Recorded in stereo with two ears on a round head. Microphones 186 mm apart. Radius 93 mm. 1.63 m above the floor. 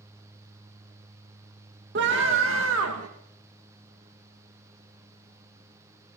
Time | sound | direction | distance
1.9 | a scream | 55° right (ahead or behind) | 2 m